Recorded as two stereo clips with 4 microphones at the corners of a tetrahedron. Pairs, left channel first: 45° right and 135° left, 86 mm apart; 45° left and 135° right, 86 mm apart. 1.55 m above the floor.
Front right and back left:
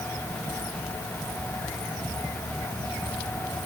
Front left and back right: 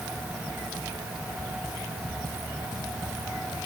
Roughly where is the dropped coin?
I don't hear a dropped coin.